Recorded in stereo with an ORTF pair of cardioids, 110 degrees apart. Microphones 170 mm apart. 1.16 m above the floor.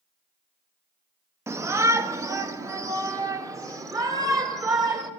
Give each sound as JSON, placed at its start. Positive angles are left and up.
{"t": 1.5, "sound": "a shout", "azimuth_deg": -15, "distance_m": 1.6}